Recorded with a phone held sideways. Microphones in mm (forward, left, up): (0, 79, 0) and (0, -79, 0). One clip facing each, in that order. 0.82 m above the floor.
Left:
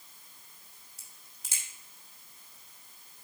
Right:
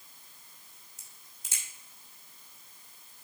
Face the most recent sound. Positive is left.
turn(degrees=75)  # may be behind; listen again after turning